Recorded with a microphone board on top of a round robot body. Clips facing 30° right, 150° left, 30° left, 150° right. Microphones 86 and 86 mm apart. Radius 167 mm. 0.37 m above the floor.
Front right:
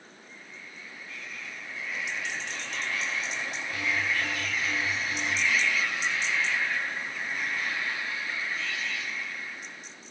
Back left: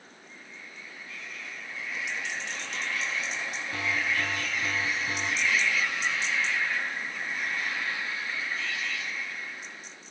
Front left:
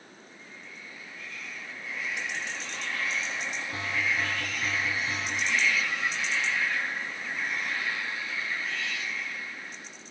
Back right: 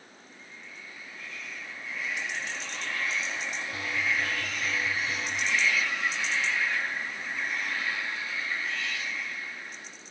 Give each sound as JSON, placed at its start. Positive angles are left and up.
{"t": 3.7, "sound": "an alarm", "azimuth_deg": 95, "distance_m": 4.0}